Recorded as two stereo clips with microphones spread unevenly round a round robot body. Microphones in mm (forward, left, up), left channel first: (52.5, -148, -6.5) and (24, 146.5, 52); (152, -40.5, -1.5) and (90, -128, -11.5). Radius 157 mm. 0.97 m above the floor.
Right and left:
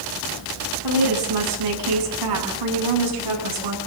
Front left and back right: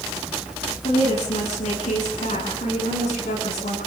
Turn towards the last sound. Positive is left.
turn(degrees=95)